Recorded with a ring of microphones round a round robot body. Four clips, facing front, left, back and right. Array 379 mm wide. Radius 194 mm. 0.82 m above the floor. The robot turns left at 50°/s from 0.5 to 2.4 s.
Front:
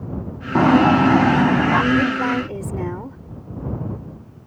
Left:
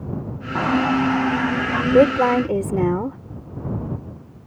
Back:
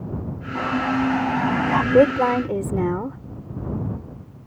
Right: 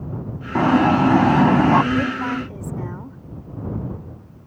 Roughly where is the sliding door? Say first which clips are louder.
Right 4 dB, front 9 dB; ahead.